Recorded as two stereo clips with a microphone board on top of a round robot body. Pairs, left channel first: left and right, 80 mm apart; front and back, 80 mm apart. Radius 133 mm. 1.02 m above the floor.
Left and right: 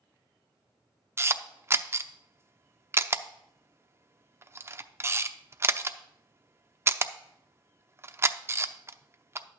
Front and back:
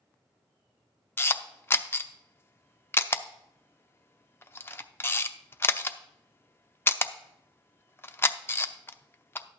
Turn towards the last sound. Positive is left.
turn(degrees=-50)